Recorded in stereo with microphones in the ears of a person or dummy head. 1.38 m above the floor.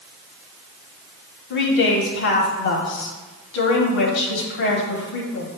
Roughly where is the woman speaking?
Left.